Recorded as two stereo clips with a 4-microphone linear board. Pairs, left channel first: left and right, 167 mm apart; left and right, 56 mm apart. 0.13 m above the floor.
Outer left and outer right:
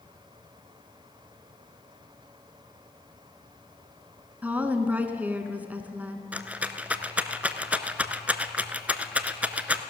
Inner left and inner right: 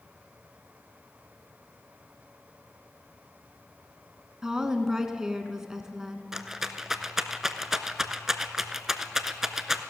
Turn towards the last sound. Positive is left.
turn(degrees=-10)  # may be behind; listen again after turning